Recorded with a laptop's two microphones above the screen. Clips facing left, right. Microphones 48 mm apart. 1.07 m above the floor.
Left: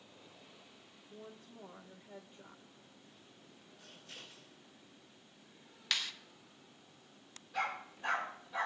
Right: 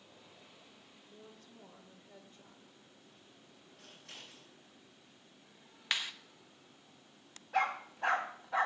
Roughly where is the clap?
Right.